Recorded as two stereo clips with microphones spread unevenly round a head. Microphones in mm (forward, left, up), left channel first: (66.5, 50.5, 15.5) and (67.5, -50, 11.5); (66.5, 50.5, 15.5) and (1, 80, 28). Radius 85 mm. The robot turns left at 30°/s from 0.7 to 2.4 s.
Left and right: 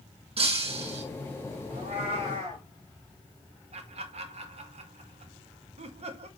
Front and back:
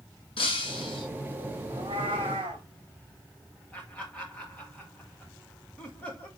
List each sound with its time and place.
0.4 s breaking glass: 65° right, 5.5 m; by 1.0 s 80° right, 5.5 m
1.7 s a cat meowing: 130° right, 2.5 m; by 2.6 s 155° right, 2.5 m
3.7 s laughter: 100° right, 1.9 m